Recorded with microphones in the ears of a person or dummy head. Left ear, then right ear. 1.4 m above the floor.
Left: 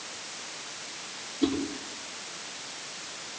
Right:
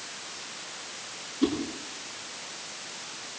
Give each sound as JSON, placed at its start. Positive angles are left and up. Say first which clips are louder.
{"t": 1.4, "sound": "a whoosh", "louder": "right 1 dB", "side_deg": -35, "distance_m": 8.0}